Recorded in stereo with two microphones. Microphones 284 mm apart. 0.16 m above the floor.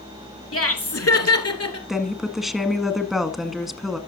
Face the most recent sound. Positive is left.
turn(degrees=0)  # may be behind; listen again after turning